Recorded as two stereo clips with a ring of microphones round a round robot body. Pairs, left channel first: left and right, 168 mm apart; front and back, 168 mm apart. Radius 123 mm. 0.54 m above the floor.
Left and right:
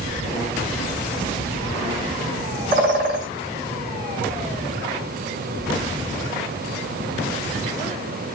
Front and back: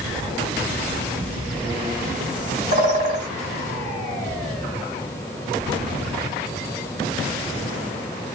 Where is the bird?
130° right, 1.5 m.